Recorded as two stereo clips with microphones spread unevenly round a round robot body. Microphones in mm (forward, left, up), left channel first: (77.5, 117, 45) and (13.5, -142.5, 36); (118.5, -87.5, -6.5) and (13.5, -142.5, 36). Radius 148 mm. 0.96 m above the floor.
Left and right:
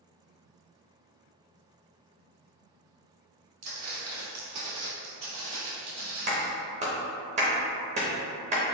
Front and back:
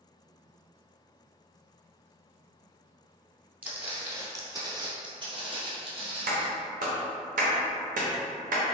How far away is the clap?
About 0.8 m.